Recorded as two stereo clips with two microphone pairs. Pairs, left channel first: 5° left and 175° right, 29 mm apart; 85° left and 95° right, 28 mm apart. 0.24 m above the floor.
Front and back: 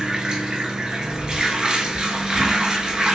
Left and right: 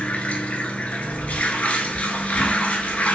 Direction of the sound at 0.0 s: 125° left.